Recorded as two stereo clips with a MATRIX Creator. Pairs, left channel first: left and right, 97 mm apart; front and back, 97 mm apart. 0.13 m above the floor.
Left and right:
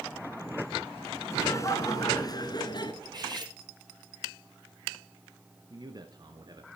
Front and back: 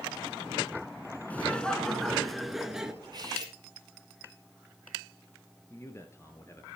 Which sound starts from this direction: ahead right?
A man speaking, at 5.7 s.